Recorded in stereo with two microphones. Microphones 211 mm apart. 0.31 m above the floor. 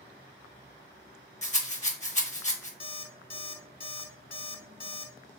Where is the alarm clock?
45° left (ahead or behind), 1.0 m.